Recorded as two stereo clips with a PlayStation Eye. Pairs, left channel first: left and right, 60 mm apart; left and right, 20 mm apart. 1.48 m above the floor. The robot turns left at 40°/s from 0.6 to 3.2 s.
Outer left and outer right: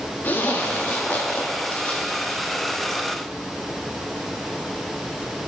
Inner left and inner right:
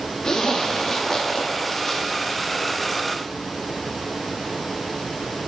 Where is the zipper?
35° left (ahead or behind), 1.0 m; by 3.0 s 5° left (ahead or behind), 1.0 m.